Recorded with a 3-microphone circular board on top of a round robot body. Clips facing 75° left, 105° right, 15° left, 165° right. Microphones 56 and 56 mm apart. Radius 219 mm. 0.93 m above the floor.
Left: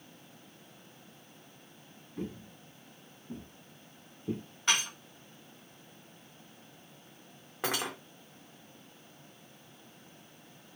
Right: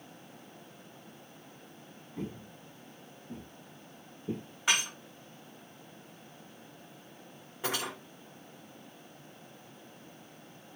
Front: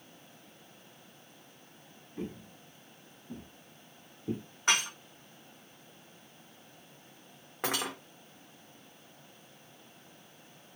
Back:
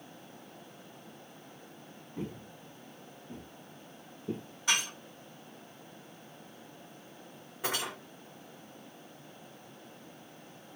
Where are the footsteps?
170° right, 1.5 m; by 4.5 s 40° left, 1.5 m.